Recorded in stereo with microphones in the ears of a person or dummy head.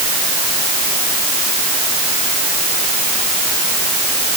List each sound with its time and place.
Only background noise.